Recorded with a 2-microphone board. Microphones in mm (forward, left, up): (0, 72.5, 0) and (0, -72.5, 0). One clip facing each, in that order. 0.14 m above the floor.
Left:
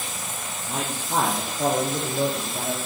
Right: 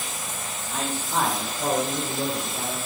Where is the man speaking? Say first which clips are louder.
Left 1 dB; 50° left (ahead or behind), 4.5 m; by 2.8 s 45° left (ahead or behind), 5.5 m.